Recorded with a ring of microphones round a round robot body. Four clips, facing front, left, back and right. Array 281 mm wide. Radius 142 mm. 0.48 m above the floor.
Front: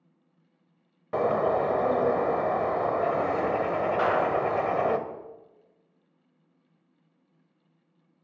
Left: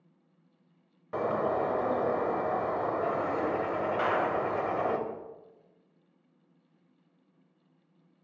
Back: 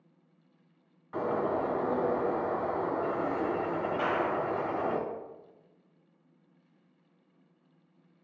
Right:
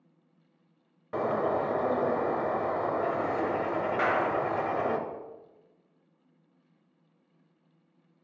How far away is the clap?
About 2.5 m.